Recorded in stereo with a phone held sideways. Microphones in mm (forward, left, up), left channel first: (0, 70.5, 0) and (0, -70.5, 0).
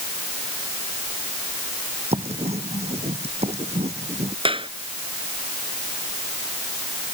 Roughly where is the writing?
Right.